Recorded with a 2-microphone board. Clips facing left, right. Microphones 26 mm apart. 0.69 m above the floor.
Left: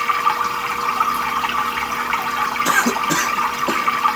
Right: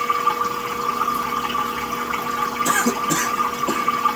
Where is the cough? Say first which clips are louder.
Left 3 dB; 35° left (ahead or behind), 1.1 m.